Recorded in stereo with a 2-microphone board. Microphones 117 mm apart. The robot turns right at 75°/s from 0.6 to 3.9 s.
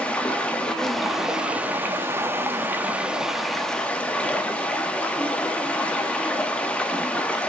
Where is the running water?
10° left (ahead or behind), 1.1 m.